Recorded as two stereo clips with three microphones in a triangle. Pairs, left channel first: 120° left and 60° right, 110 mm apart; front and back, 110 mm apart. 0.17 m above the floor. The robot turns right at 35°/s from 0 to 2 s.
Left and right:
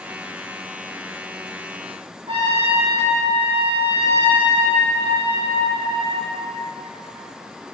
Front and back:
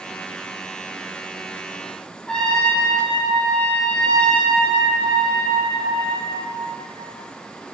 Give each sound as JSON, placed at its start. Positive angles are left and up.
{"t": 2.3, "sound": "a trumpet", "azimuth_deg": -80, "distance_m": 6.0}